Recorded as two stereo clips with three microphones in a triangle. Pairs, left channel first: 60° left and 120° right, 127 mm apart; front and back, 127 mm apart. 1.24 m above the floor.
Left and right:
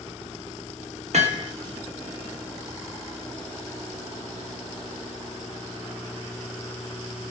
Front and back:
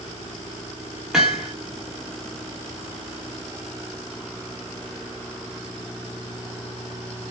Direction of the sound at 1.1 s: 95° right.